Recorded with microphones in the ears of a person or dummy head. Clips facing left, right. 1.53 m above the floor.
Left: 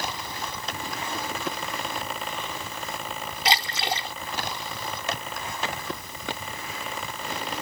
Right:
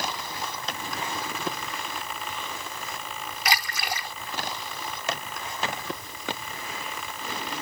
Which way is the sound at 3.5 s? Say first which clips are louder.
Left 3 dB; 20° left (ahead or behind).